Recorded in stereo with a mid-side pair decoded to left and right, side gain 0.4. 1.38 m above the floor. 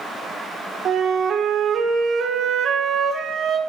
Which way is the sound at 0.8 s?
65° right.